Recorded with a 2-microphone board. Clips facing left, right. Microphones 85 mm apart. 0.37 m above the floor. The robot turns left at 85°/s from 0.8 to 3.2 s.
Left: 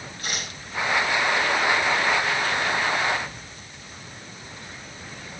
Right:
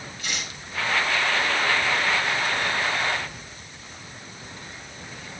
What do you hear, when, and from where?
0.2 s tearing paper: 45° left (ahead or behind), 6 m